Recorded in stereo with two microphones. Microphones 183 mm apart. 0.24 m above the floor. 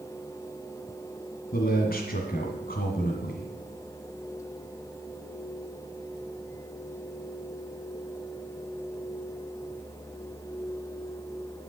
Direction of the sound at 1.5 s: 55° left (ahead or behind).